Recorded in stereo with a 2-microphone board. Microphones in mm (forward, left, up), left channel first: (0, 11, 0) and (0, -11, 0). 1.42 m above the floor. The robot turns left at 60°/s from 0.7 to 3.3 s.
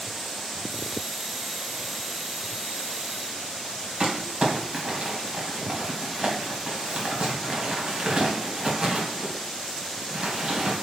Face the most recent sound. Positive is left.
turn(degrees=-40)  # may be behind; listen again after turning